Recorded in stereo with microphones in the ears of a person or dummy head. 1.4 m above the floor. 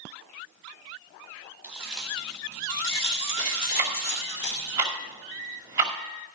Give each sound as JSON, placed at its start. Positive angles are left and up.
{"t": 1.6, "sound": "keys jangling", "side_deg": -15, "distance_m": 2.5}
{"t": 3.8, "sound": "ticking", "side_deg": -20, "distance_m": 2.0}